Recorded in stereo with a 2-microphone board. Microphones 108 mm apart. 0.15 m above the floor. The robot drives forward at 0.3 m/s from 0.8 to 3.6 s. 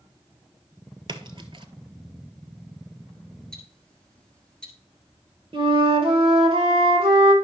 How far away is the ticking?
About 1.6 m.